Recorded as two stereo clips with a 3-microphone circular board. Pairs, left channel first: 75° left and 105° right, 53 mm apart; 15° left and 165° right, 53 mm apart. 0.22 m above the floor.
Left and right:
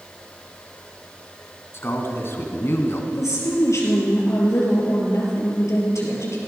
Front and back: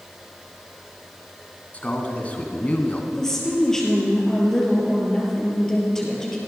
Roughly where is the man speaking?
Ahead left.